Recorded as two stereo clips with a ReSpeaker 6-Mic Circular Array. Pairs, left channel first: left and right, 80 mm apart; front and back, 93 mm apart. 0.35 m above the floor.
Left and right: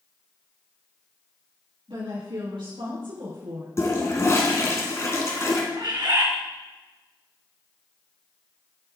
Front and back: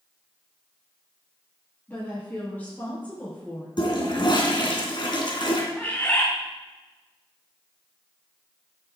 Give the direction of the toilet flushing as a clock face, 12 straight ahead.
11 o'clock.